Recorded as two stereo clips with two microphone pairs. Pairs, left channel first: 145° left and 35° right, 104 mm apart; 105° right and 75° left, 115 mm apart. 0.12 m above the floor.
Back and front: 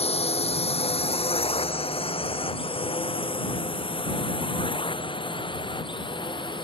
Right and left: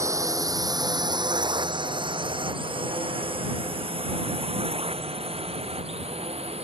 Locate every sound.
0.0 s a drone: 140° left; by 6.7 s 105° left